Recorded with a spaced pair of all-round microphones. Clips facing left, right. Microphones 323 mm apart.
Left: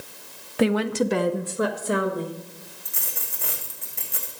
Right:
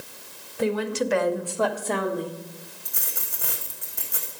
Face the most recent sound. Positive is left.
turn(degrees=-5)  # may be behind; listen again after turning